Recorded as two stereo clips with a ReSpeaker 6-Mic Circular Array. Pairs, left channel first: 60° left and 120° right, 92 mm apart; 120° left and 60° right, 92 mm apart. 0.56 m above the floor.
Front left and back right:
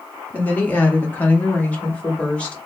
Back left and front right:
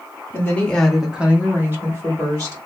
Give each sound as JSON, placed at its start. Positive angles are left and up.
{"t": 0.3, "sound": "a woman speaking", "azimuth_deg": 110, "distance_m": 0.9}